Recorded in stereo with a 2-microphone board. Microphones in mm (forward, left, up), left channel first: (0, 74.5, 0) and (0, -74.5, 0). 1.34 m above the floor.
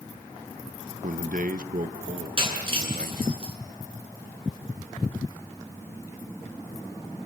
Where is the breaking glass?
35° right (ahead or behind), 7 m.